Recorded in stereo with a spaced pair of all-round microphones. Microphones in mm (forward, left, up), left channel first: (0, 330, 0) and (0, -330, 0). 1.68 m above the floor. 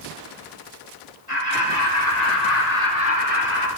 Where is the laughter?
80° left, 2.5 m; by 3.7 s 45° left (ahead or behind), 1.5 m.